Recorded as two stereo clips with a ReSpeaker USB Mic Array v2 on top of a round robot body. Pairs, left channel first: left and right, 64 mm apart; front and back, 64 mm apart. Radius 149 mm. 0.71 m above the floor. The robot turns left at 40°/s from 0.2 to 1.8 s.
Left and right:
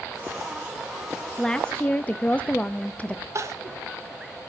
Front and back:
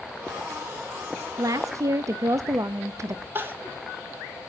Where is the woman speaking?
170° left, 0.7 m; by 3.2 s 155° left, 0.7 m.